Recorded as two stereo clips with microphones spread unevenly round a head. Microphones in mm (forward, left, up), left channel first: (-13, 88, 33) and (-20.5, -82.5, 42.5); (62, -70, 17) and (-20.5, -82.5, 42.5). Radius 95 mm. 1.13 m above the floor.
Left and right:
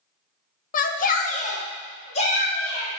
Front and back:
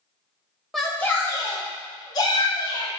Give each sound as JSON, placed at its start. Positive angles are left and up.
{"t": 0.7, "sound": "a shout", "azimuth_deg": 85, "distance_m": 0.5}